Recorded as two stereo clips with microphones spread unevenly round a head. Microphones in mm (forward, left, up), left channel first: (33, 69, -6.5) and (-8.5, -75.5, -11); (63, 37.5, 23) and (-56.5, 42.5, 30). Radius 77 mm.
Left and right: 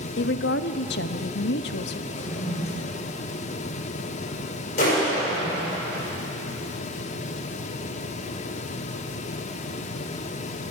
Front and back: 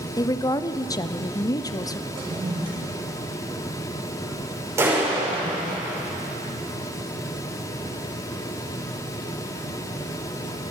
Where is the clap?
110° left, 5 m.